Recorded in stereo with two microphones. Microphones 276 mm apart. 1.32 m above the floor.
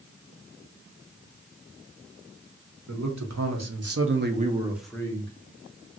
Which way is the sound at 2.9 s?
80° right.